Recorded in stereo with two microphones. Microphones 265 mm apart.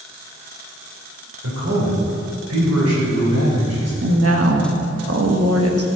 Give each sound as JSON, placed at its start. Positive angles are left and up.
{"t": 1.4, "sound": "a man speaking", "side_deg": -75, "distance_m": 3.5}
{"t": 4.0, "sound": "a woman speaking", "side_deg": -60, "distance_m": 1.2}